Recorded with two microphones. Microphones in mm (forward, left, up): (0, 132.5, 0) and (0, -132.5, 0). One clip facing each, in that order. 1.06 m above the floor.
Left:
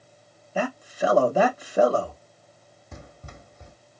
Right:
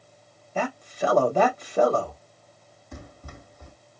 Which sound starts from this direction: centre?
A man speaking, at 0.6 s.